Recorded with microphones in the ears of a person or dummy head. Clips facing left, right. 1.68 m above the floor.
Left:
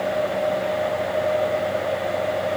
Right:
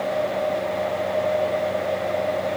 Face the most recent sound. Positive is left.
No sound to turn to.